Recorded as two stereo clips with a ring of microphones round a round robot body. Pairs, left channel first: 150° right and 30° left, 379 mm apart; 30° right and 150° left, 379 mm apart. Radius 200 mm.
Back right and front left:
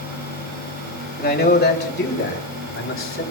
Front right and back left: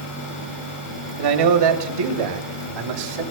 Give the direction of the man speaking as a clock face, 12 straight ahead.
7 o'clock.